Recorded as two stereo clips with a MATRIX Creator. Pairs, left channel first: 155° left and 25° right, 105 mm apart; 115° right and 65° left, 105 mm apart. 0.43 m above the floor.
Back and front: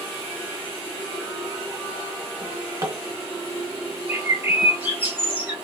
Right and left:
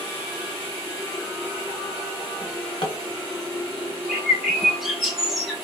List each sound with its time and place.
2.4 s a drawer: 80° right, 1.2 m
4.1 s a bird: 15° right, 0.9 m